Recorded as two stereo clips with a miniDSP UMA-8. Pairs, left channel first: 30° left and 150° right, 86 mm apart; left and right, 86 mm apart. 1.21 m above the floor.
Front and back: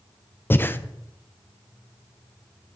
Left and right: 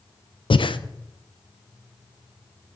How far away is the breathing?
About 0.5 m.